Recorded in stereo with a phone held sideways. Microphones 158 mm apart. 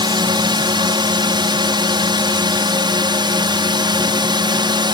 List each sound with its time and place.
0.0 s a drone: 30° right (ahead or behind)